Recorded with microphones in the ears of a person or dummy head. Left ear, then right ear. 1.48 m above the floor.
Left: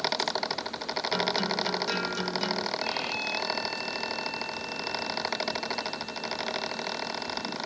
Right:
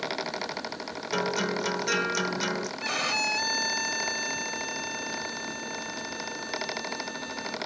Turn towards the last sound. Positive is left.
turn(degrees=-50)  # may be behind; listen again after turning